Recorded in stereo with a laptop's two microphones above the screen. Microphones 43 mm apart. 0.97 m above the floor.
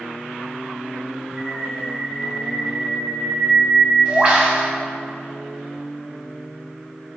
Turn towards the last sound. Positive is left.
turn(degrees=-25)  # may be behind; listen again after turning